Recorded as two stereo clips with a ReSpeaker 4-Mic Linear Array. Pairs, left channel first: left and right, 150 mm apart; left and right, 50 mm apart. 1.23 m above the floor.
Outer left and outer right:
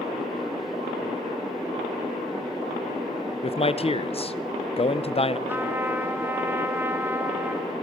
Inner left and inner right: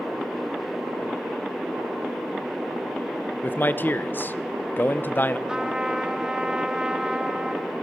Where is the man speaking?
40° left (ahead or behind), 0.6 m.